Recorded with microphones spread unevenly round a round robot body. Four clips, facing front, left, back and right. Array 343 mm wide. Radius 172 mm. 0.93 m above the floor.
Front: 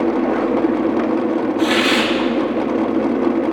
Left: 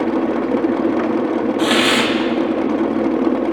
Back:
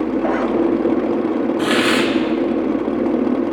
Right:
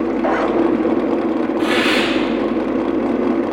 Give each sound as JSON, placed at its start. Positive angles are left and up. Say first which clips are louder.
{"t": 1.6, "sound": "a hiss", "louder": "left 1 dB, even", "azimuth_deg": 145, "distance_m": 1.0}